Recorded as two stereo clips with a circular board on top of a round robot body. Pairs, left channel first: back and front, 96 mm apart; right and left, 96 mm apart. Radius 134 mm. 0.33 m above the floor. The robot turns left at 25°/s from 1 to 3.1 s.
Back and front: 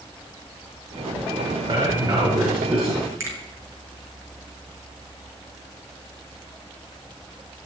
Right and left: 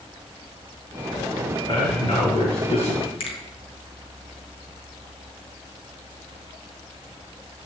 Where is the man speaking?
40° right, 6 m; by 3.1 s 75° right, 6 m.